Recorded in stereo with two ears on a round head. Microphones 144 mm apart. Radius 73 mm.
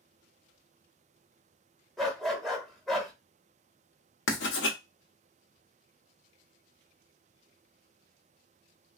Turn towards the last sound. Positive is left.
turn(degrees=80)